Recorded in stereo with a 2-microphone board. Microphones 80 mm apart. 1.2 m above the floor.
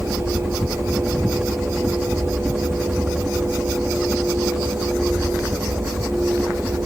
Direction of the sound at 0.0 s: 5° right (ahead or behind).